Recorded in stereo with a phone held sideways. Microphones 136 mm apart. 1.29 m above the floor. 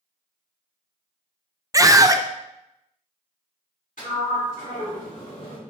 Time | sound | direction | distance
1.7 | a scream | 25° right (ahead or behind) | 0.6 m
4.0 | a sliding door | 80° left | 2.5 m